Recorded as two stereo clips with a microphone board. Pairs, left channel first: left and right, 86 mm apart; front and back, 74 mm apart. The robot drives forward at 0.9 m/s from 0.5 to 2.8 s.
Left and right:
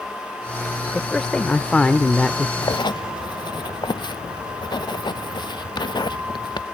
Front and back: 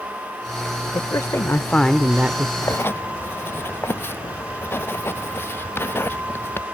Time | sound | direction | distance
0.9 | a man speaking | 10° left | ?
2.6 | writing | 60° left | ?